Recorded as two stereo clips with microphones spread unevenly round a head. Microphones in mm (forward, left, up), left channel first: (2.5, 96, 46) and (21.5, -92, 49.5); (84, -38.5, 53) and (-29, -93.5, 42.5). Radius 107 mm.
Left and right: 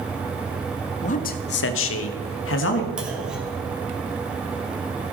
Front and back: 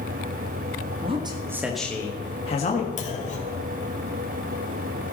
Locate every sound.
1.0 s a man speaking: 150° left, 1.3 m; by 2.9 s 70° left, 1.6 m
3.0 s a clunk: straight ahead, 2.5 m